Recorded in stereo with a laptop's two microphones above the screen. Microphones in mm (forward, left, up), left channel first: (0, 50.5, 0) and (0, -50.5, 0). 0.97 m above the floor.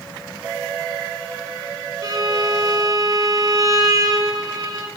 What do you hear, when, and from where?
2.0 s a violin: 40° right (ahead or behind), 3 m